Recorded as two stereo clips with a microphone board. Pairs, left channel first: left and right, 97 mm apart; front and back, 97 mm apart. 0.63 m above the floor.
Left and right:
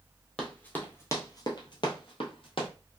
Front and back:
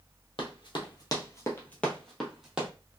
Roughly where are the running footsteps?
Ahead.